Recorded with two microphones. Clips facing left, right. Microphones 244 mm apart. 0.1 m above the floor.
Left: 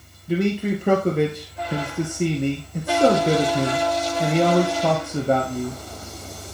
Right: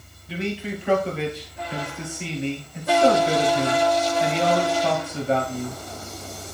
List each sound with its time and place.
0.3 s a man speaking: 55° left (ahead or behind), 2 m